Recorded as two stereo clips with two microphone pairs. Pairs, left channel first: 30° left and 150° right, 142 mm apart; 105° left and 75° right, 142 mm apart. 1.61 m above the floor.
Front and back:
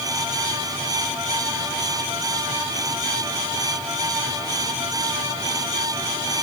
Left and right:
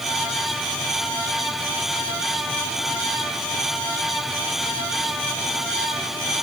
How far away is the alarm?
No alarm in this recording.